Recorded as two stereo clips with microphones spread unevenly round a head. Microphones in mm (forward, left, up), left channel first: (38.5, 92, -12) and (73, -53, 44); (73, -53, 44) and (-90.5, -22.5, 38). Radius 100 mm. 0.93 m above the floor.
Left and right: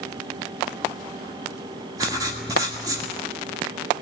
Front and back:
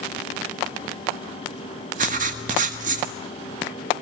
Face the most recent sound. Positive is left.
turn(degrees=-150)